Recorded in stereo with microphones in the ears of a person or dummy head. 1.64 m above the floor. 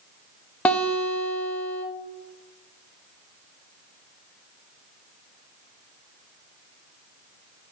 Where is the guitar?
10° left (ahead or behind), 0.6 m.